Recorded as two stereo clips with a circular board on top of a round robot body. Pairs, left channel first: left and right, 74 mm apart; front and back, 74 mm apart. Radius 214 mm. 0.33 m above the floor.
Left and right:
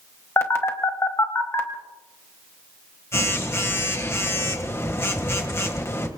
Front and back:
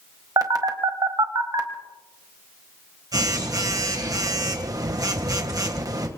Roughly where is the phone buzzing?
Behind left.